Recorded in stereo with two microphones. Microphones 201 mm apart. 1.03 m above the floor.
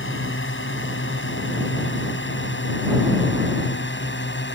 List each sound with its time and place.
0.0 s a drone: 80° left; by 4.5 s 65° left (ahead or behind)